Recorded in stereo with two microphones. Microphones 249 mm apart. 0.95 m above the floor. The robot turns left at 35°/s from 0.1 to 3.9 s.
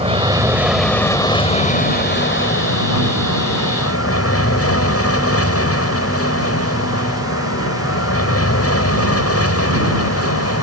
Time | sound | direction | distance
0.0 | an aircraft | 25° right (ahead or behind) | ?